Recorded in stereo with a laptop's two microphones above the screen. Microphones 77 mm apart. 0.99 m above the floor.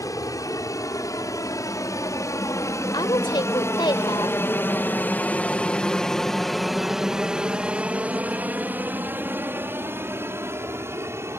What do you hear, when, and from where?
0.0 s an aircraft: 50° left (ahead or behind); by 11.4 s 35° right (ahead or behind)
2.9 s a woman speaking: 75° left (ahead or behind)